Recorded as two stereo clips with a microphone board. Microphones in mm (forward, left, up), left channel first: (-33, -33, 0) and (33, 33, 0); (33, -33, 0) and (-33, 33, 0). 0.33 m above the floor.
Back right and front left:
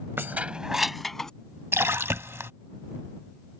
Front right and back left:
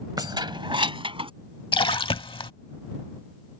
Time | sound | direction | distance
0.2 | keys jangling | 105° left | ?
1.7 | a splash | 20° right | ?